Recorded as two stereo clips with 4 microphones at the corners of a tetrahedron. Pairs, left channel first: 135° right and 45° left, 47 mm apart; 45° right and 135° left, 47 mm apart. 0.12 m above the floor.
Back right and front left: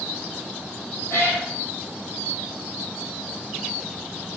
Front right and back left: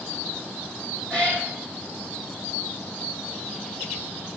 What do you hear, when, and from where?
1.1 s a cat meowing: 105° right, 1.8 m